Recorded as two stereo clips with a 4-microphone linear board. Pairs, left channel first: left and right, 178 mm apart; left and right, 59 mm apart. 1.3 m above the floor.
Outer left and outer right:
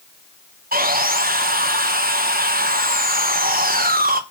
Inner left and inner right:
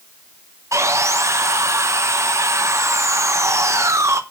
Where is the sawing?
55° right (ahead or behind), 1.0 m.